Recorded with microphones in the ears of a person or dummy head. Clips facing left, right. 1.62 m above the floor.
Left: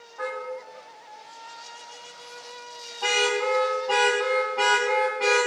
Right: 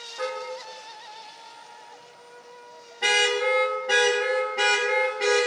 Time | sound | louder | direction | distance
0.2 | a car horn | right 1 dB | 50° right (ahead or behind) | 4 m